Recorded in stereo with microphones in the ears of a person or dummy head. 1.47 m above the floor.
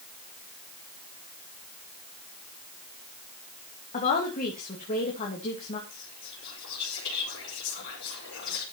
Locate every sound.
3.9 s a woman speaking: 35° left (ahead or behind), 2.5 m
5.9 s whispering: 60° left (ahead or behind), 5.5 m